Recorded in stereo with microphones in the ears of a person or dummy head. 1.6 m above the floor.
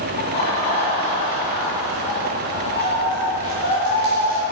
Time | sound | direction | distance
0.2 | laughter | 40° left (ahead or behind) | 2.5 m